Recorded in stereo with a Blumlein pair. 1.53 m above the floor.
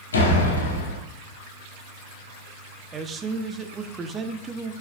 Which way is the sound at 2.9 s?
20° right.